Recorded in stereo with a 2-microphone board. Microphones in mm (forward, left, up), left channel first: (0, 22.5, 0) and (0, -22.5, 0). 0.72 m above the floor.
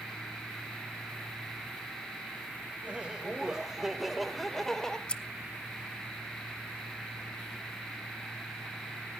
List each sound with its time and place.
2.8 s laughter: 25° right (ahead or behind), 2.5 m; by 5.0 s 15° left (ahead or behind), 2 m
5.1 s scissors: 25° left (ahead or behind), 0.5 m